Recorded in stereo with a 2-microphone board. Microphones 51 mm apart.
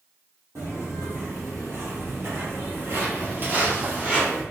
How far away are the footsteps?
About 1.8 m.